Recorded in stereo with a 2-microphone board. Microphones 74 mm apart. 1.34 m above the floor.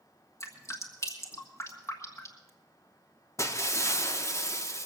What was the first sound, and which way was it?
Dripping, 40° left (ahead or behind).